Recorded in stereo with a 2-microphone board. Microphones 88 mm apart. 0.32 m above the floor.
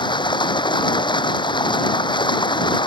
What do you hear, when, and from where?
0.0 s running water: 65° left (ahead or behind)